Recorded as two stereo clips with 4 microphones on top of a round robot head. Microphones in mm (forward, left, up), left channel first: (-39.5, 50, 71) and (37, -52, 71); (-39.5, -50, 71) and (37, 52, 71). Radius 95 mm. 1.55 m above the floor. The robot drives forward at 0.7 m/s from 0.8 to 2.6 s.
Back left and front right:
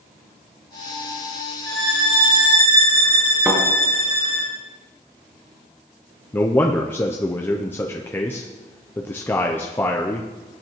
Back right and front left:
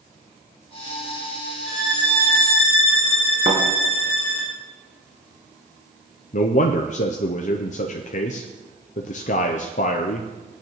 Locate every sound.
1.7 s a violin: 45° right, 3 m; by 4.5 s 60° right, 2.5 m
3.5 s a thud: 35° left, 3 m
6.3 s a man speaking: 160° right, 0.5 m